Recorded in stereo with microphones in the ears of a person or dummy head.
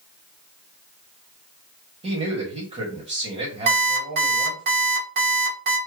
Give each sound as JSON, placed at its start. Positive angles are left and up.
{"t": 2.0, "sound": "a man speaking", "side_deg": -40, "distance_m": 1.5}
{"t": 3.7, "sound": "an alarm clock", "side_deg": -60, "distance_m": 2.0}